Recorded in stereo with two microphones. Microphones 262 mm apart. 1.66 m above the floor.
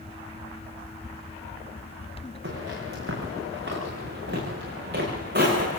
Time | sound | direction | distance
2.4 | footsteps | 50° right (ahead or behind) | 10 m